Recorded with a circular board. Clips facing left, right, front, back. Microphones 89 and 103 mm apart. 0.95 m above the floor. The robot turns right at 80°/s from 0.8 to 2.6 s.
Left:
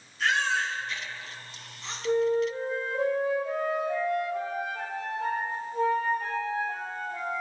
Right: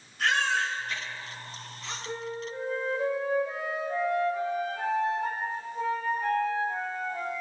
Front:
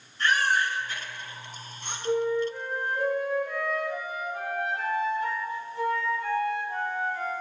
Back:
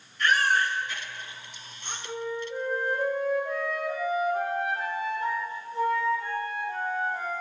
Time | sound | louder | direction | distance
0.2 | a baby crying | even, back 1 dB | 55° right | 7 m
2.0 | a flute | left 13 dB, front 8 dB | 80° left | 5 m